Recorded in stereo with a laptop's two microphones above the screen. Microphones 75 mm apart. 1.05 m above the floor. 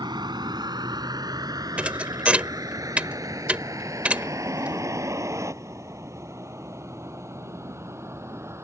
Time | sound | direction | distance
0.0 | a vehicle | 75° right (ahead or behind) | ?
1.8 | a thud | 20° right (ahead or behind) | ?